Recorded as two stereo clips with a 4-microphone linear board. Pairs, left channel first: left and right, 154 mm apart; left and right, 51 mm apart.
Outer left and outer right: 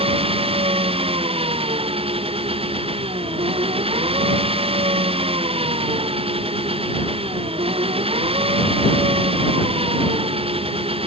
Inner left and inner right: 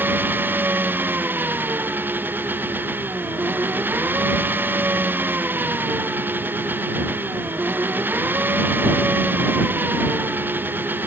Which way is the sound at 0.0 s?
40° right (ahead or behind).